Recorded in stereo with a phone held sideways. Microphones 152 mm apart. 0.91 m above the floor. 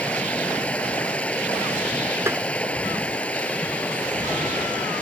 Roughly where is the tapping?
Centre.